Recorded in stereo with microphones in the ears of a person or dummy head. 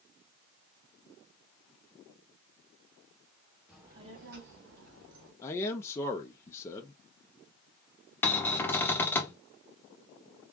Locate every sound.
3.7 s a child speaking: 5° right (ahead or behind), 0.7 m; by 5.3 s 70° right (ahead or behind), 1.4 m
5.4 s a man speaking: 20° left (ahead or behind), 0.5 m
8.2 s a cupboard door: 10° left (ahead or behind), 0.6 m